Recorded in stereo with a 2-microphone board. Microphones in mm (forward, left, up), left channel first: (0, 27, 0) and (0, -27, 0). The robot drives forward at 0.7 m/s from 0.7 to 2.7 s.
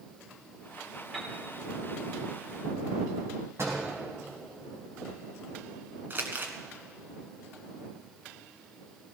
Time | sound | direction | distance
1.1 | a piano | 15° right (ahead or behind) | 4 m
3.6 | a door slam | 55° right (ahead or behind) | 4.5 m
6.1 | crumpling | 40° right (ahead or behind) | 1.6 m